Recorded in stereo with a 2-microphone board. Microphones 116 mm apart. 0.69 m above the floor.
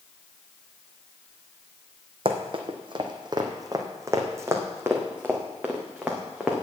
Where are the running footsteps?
55° right (ahead or behind), 1.5 m; by 6.6 s 5° right (ahead or behind), 3 m.